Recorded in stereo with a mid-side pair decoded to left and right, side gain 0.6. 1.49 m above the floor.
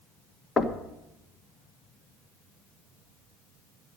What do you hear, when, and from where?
0.6 s knocking: 30° left, 1.4 m